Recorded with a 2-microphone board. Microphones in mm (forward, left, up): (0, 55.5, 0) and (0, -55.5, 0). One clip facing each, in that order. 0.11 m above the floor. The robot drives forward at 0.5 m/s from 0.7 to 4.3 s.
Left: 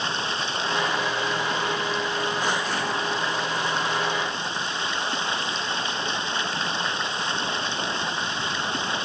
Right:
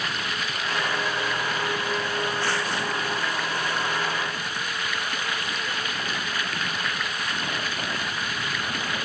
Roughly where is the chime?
I don't hear a chime.